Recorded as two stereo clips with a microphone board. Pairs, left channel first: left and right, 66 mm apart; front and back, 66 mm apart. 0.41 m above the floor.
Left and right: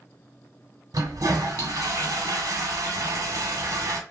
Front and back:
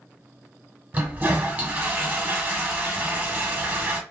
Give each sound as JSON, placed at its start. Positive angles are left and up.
{"t": 0.9, "sound": "a toilet flushing", "azimuth_deg": -115, "distance_m": 0.8}